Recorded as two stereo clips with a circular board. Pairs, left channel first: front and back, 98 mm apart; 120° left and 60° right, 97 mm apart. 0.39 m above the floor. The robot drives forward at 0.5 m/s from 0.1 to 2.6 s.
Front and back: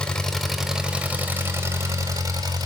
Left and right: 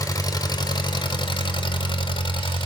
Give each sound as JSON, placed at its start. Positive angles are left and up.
{"t": 0.0, "sound": "an engine running", "azimuth_deg": 80, "distance_m": 1.2}